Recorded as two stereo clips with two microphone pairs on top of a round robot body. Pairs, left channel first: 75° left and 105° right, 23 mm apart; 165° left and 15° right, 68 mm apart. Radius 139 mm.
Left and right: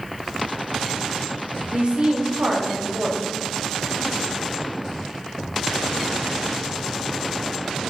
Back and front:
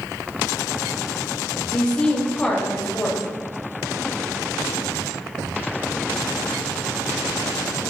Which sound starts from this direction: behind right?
A woman speaking, at 1.7 s.